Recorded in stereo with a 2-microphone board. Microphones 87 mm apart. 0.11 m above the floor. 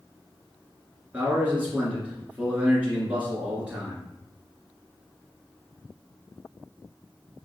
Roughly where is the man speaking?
Centre.